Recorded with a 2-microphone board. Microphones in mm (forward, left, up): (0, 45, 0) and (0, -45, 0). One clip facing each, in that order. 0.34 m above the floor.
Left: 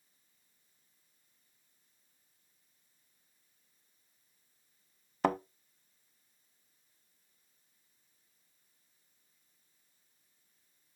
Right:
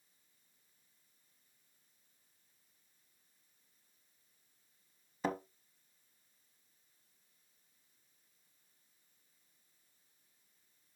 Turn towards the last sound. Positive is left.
turn(degrees=65)  # may be behind; listen again after turning